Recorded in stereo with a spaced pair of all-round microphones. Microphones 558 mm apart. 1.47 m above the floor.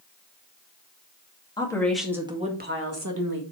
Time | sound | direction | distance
1.6 | a woman speaking | 10° left (ahead or behind) | 2.5 m